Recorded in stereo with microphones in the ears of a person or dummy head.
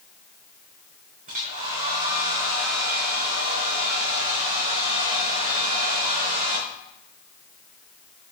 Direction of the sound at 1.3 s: 40° right (ahead or behind).